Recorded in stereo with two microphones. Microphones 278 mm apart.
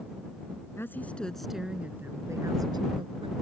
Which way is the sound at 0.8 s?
10° left (ahead or behind).